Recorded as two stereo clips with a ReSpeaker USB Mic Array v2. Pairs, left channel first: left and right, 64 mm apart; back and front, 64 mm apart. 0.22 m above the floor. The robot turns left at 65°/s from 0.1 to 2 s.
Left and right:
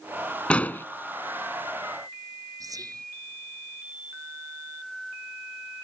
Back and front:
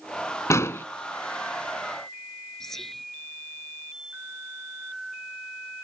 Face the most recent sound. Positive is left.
turn(degrees=-95)